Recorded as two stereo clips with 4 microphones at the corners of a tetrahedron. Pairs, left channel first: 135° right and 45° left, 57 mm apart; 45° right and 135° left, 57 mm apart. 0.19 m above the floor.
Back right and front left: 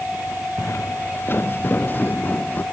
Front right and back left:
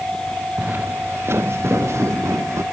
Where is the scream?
No scream in this recording.